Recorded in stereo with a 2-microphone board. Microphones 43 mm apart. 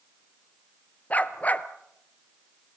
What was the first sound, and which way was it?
A dog barking, 35° left (ahead or behind).